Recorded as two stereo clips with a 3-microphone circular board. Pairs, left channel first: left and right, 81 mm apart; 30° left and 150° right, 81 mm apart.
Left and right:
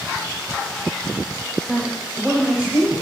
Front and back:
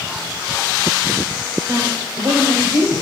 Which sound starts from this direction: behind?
A woman speaking, at 1.7 s.